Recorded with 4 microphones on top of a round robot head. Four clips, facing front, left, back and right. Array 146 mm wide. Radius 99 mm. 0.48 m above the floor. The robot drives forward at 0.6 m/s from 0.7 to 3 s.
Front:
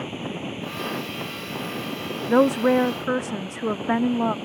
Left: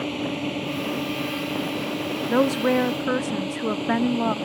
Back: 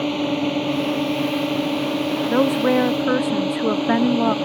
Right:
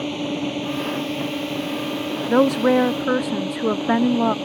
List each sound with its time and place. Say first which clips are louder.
0.0 s a drone: right 2 dB, back 10 dB; 165° right
2.3 s a woman speaking: right 4 dB, front 1 dB; 50° right; by 4.3 s 125° right